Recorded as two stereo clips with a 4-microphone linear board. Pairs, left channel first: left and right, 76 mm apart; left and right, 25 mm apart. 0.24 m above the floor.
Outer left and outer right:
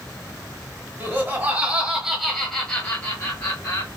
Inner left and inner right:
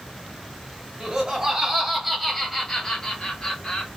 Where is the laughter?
30° right (ahead or behind), 1.2 m; by 3.9 s 35° left (ahead or behind), 1.2 m.